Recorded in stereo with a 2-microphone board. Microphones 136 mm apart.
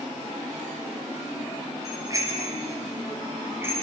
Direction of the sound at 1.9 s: 25° right (ahead or behind).